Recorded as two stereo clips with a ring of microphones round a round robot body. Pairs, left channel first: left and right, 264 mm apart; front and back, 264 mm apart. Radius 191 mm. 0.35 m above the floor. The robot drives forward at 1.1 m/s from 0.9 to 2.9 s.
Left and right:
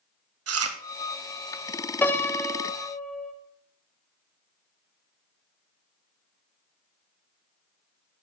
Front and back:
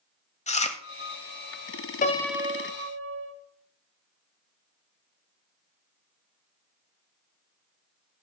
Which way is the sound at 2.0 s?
15° left.